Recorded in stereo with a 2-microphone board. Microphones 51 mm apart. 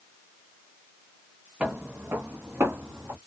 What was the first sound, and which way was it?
Footsteps, 25° right (ahead or behind).